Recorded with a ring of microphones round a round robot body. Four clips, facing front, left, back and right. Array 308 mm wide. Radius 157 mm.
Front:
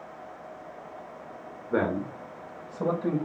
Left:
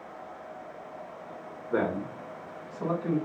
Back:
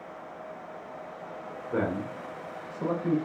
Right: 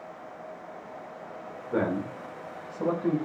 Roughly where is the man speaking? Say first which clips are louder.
Right 1 dB, front 3 dB; ahead left.